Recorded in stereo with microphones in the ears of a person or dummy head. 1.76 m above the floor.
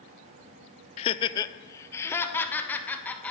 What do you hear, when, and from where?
1.0 s laughter: 35° left (ahead or behind), 0.6 m; by 3.3 s 10° left (ahead or behind), 2.5 m